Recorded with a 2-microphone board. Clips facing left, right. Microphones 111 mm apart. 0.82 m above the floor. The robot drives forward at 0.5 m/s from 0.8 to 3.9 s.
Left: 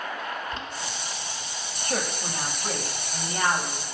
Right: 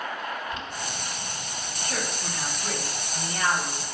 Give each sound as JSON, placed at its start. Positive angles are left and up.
{"t": 0.5, "sound": "boiling", "side_deg": 35, "distance_m": 1.8}
{"t": 1.8, "sound": "a woman speaking", "side_deg": 40, "distance_m": 1.1}